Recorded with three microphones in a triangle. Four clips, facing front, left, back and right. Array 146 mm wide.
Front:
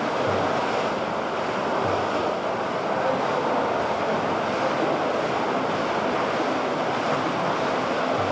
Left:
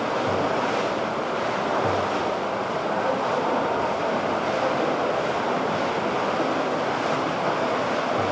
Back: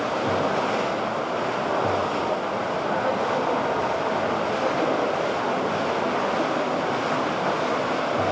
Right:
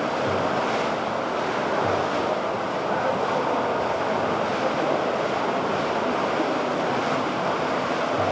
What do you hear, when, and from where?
Only background noise.